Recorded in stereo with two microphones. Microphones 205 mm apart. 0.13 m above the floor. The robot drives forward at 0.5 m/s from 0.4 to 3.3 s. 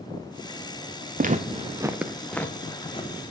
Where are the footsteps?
45° right (ahead or behind), 0.6 m; by 3.3 s 30° left (ahead or behind), 0.9 m.